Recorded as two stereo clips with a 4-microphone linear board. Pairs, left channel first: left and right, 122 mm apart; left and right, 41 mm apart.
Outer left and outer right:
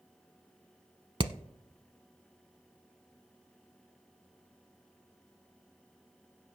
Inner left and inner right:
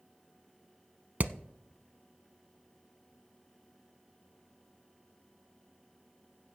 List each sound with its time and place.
1.2 s hammering: 45° right (ahead or behind), 0.6 m